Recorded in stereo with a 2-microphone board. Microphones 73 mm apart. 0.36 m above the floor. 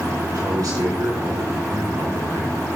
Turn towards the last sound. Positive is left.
turn(degrees=-75)  # may be behind; listen again after turning